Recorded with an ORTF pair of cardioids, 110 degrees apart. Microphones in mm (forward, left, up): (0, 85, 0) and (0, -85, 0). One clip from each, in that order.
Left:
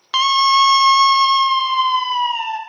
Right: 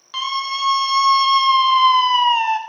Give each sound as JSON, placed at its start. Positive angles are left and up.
{"t": 0.1, "sound": "a scream", "azimuth_deg": 60, "distance_m": 1.1}